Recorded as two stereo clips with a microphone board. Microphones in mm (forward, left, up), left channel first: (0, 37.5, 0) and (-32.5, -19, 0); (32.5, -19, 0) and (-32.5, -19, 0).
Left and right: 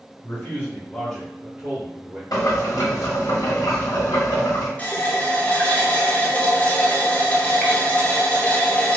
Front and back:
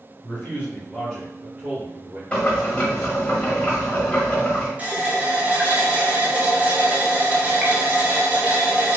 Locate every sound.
0.2 s a man speaking: 35° left, 1.8 m; by 2.2 s 145° right, 1.8 m
2.3 s boiling: 70° left, 1.2 m
4.8 s a running tap: 120° left, 0.7 m